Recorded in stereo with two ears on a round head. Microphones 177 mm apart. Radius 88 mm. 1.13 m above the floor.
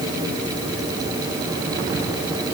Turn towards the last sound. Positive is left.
No sound to turn to.